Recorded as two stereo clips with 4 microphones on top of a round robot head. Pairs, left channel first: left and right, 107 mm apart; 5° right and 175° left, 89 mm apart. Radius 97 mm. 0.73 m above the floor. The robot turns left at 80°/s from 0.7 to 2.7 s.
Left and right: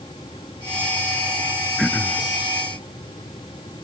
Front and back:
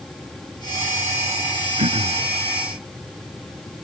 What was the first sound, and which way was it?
Throat clearing, straight behind.